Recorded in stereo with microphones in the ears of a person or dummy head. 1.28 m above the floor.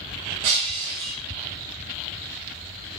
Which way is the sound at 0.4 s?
30° right (ahead or behind).